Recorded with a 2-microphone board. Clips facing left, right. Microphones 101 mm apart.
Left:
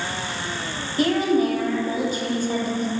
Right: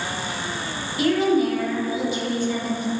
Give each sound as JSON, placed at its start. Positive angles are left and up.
{"t": 1.0, "sound": "a woman speaking", "side_deg": 40, "distance_m": 0.5}